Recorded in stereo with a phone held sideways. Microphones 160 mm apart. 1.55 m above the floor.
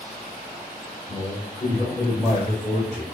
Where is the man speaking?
10° left (ahead or behind), 1.5 m; by 3.0 s 55° left (ahead or behind), 1.9 m.